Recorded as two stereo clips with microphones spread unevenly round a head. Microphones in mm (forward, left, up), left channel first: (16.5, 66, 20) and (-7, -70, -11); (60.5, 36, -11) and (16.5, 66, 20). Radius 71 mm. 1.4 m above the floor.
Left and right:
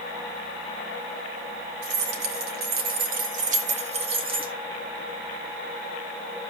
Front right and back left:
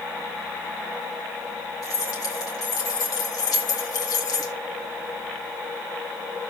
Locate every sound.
1.8 s keys jangling: 95° right, 2 m; by 4.5 s 40° right, 2 m